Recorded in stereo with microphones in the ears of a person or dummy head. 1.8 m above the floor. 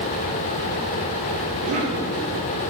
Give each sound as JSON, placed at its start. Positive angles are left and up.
{"t": 1.6, "sound": "a cough", "side_deg": -40, "distance_m": 2.5}